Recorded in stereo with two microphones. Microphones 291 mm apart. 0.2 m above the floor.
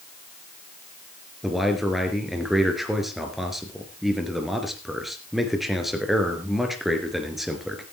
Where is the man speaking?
Centre (ahead or behind), 3 m.